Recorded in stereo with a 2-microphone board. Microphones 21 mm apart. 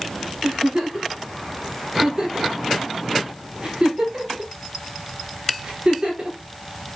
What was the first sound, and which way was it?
A giggle, 40° right (ahead or behind).